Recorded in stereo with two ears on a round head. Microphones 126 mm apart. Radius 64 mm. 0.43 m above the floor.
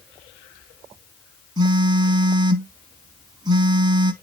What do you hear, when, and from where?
1.6 s a phone buzzing: 30° right (ahead or behind), 0.8 m